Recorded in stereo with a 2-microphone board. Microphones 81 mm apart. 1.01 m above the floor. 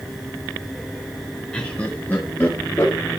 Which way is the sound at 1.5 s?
10° left (ahead or behind).